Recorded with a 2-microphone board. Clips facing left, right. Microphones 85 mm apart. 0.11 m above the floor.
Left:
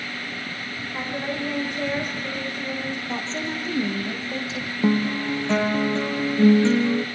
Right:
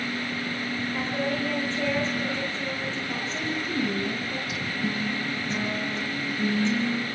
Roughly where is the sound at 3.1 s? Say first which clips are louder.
Left 2 dB; left.